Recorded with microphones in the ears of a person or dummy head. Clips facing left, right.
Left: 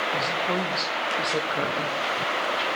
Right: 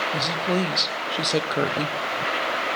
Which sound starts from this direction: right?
A woman speaking, at 0.1 s.